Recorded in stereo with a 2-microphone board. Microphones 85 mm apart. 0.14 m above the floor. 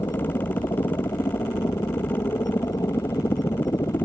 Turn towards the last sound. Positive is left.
turn(degrees=50)  # may be behind; listen again after turning